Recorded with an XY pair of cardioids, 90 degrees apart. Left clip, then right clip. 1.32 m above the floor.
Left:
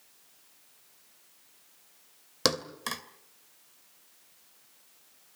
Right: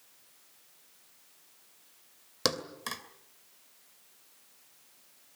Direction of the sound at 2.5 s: 20° left.